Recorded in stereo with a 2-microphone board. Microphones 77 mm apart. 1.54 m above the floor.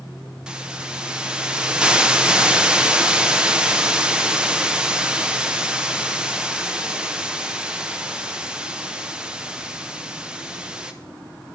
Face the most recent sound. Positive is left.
turn(degrees=-10)  # may be behind; listen again after turning